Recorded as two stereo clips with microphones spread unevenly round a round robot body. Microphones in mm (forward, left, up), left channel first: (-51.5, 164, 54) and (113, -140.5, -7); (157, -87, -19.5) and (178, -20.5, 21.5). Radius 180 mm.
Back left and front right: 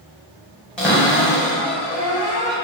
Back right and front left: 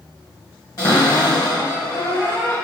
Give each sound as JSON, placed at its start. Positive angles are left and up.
{"t": 0.8, "sound": "a cupboard door", "azimuth_deg": -150, "distance_m": 0.9}